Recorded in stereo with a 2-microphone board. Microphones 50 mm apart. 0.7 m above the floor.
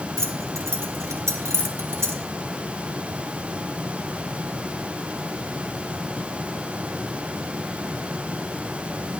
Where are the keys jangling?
60° right (ahead or behind), 1.3 m.